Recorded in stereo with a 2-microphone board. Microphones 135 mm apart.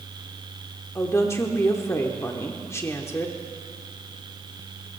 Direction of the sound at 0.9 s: 20° left (ahead or behind).